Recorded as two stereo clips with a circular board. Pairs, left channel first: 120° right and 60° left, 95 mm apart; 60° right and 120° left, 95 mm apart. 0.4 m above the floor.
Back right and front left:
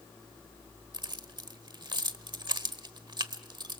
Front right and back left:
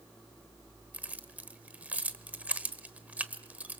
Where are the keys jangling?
50° left, 1.1 m.